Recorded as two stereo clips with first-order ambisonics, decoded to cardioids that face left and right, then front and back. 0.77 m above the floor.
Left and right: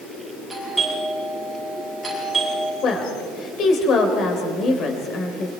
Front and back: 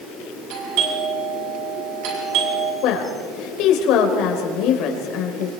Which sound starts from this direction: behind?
A doorbell, at 0.5 s.